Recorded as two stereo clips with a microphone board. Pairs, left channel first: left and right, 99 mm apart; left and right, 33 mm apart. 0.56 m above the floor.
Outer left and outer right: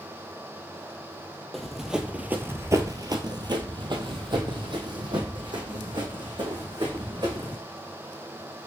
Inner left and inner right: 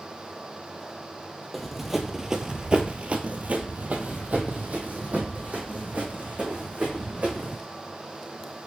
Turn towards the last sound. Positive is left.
turn(degrees=-50)  # may be behind; listen again after turning